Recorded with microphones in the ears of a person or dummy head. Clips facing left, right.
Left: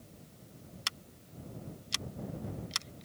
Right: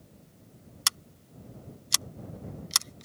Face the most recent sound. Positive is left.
turn(degrees=-60)  # may be behind; listen again after turning